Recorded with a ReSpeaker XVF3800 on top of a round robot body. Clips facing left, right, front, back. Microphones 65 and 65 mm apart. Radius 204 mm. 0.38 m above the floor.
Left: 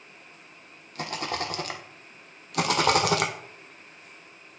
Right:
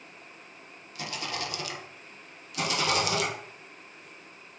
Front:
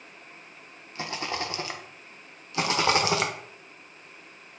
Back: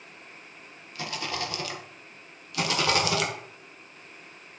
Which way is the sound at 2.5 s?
60° left.